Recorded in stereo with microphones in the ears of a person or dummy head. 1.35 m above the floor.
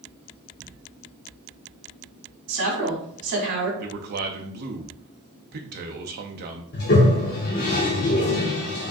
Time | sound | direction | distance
2.5 | a woman speaking | 65° right (ahead or behind) | 1.8 m
3.8 | a man speaking | 50° right (ahead or behind) | 0.6 m
6.7 | a toilet flushing | 50° left (ahead or behind) | 0.8 m